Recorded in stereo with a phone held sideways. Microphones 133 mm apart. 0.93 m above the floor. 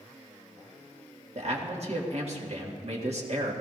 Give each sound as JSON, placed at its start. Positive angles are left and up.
{"t": 1.4, "sound": "a man speaking", "side_deg": -55, "distance_m": 1.7}